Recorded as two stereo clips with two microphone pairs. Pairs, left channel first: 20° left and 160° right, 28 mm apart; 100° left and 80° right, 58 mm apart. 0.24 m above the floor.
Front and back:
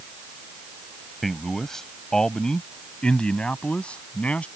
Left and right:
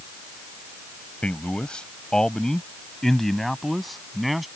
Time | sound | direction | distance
1.2 | a man speaking | 90° left | ?